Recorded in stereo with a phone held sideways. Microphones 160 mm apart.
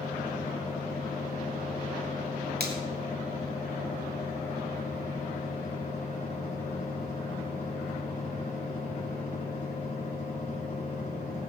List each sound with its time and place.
0.0 s a fan: 50° left (ahead or behind), 5 m
2.6 s a finger snap: 75° right (ahead or behind), 2.5 m